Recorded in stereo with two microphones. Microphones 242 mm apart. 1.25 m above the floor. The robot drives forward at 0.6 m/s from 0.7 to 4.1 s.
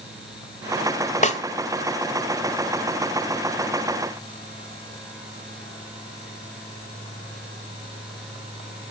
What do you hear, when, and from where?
1.2 s a snare drum: 30° left (ahead or behind), 1.2 m